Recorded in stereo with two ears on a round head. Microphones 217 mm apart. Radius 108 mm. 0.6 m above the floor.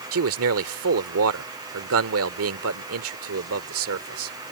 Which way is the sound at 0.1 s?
65° right (ahead or behind).